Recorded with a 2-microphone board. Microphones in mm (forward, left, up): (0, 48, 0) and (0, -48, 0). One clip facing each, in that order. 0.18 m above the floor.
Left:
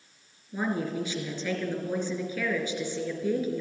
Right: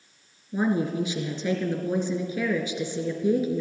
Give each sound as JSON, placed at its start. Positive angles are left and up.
{"t": 0.5, "sound": "a woman speaking", "side_deg": -10, "distance_m": 2.5}